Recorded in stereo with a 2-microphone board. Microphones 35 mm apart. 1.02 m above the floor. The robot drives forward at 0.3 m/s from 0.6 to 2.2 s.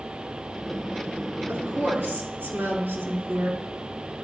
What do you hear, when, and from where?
1.5 s a woman speaking: 80° right, 2 m; by 3.6 s 85° right, 2 m